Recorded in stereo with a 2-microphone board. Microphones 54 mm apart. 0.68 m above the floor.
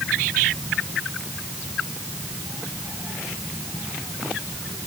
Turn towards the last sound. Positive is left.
No sound to turn to.